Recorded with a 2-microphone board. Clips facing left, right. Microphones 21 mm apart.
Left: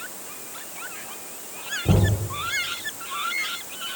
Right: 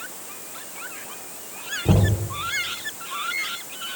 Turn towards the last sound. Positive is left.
turn(degrees=-10)  # may be behind; listen again after turning